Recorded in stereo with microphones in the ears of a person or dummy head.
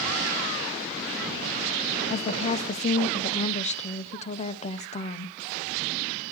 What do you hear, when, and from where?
2.1 s a woman speaking: 30° left (ahead or behind), 0.5 m